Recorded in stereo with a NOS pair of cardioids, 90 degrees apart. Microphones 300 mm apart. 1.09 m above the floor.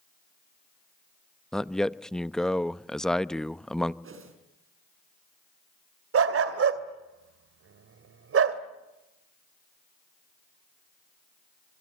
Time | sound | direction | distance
1.5 | a man speaking | straight ahead | 0.9 m
4.0 | a whoosh | 45° right | 5.5 m
6.1 | a dog barking | 50° right | 2.5 m